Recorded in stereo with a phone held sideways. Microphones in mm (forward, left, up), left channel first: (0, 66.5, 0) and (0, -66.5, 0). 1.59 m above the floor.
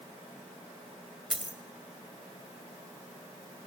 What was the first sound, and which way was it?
A dropped coin, 5° right (ahead or behind).